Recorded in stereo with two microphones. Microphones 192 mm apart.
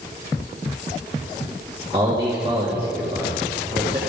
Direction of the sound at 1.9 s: 25° right (ahead or behind).